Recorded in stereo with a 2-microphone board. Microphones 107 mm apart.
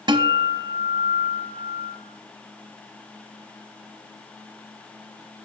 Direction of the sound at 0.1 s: 45° right (ahead or behind).